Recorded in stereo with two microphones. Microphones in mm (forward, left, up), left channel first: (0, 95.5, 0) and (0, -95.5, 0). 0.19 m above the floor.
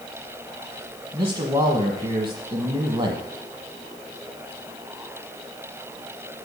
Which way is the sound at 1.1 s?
25° right (ahead or behind).